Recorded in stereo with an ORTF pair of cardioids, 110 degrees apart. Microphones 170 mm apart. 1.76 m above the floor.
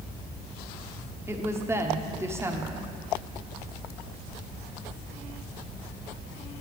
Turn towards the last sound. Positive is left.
turn(degrees=-15)